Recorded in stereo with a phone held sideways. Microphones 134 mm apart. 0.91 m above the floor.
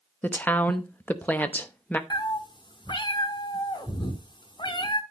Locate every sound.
0.2 s a woman speaking: 10° left (ahead or behind), 0.8 m
2.1 s a cat meowing: 35° left (ahead or behind), 1.0 m